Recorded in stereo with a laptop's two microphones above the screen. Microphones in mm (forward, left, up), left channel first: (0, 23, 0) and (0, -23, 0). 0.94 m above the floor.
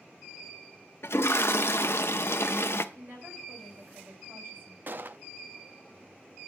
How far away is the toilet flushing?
About 0.6 m.